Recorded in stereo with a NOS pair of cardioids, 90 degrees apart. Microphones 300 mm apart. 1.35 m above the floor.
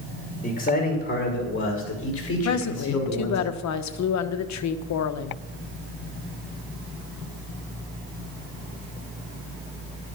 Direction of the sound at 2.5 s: 65° left.